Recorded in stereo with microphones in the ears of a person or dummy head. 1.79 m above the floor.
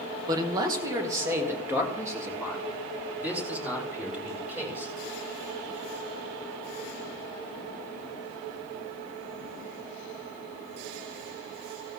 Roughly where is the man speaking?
Centre.